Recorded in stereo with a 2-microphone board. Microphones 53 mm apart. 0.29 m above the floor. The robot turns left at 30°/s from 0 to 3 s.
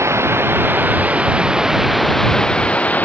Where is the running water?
120° right; by 3.0 s 150° left.